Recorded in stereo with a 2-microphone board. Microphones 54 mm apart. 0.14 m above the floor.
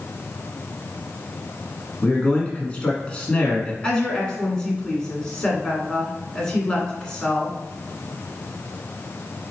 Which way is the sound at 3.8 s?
15° left (ahead or behind).